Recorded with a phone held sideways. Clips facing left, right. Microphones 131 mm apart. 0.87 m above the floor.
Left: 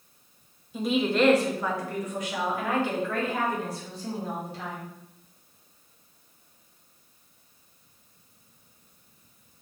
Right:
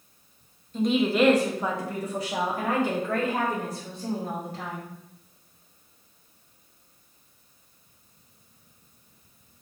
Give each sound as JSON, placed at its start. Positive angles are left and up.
{"t": 0.7, "sound": "a woman speaking", "side_deg": 10, "distance_m": 0.9}